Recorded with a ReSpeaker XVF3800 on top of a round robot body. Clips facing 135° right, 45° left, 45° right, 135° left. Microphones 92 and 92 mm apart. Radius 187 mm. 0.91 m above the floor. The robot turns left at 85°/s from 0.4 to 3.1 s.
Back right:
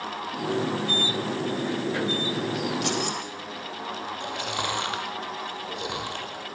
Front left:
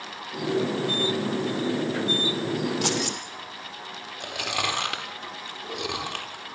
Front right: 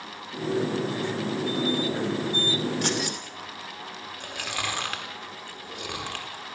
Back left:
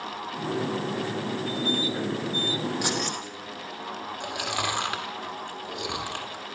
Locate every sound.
2.8 s keys jangling: 60° left, 2.5 m; by 3.2 s 35° left, 2.5 m
4.2 s chewing: 65° left, 4 m